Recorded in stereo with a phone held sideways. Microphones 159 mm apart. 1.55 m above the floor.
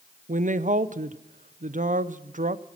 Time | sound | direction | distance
0.3 | a woman speaking | 55° right (ahead or behind) | 0.6 m